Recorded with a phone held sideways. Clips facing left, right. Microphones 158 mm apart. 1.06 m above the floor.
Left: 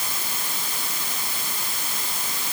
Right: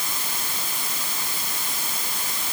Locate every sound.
Only background noise.